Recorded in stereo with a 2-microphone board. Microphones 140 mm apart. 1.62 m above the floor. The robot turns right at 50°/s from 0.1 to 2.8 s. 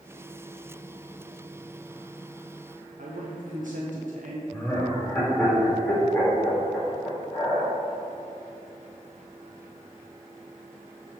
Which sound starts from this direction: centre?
Laughter, at 4.5 s.